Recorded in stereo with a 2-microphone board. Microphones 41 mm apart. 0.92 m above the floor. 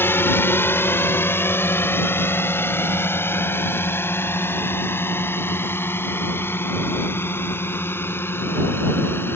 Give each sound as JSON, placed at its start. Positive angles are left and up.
{"t": 0.0, "sound": "a drone", "side_deg": 70}